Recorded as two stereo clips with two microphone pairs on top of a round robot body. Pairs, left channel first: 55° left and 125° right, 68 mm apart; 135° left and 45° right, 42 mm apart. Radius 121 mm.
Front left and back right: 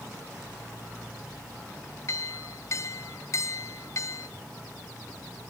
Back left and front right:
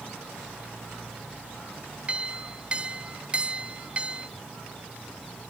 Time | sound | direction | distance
2.1 | a clink | 15° left | 1.6 m